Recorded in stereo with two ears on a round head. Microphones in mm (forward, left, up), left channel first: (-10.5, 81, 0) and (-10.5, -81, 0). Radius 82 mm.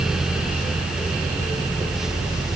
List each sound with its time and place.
Only background noise.